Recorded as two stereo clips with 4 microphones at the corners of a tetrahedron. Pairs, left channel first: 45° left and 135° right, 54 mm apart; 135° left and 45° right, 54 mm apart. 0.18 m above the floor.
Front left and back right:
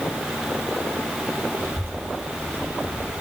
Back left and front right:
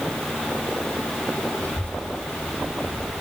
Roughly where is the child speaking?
Behind.